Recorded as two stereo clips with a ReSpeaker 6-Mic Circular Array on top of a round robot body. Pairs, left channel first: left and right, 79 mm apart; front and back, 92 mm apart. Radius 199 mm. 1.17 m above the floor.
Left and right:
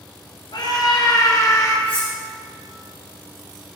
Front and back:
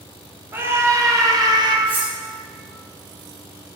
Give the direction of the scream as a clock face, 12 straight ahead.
8 o'clock.